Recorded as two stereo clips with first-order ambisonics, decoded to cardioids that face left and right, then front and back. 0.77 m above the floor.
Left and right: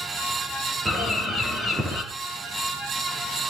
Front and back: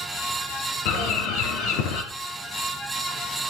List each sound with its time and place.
0.8 s a bird: 5° right, 3.5 m